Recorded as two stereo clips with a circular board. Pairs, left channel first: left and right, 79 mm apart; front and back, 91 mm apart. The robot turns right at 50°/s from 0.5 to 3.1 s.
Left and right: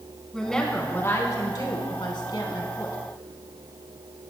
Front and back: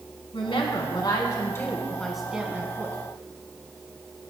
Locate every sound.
0.3 s a woman speaking: 5° left, 2.5 m; by 3.0 s 130° left, 2.5 m